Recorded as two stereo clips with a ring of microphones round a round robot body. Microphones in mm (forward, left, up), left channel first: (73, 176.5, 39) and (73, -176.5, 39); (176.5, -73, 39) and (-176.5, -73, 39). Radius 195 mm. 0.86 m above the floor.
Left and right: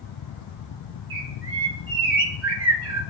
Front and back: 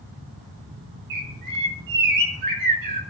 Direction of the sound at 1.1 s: 150° right.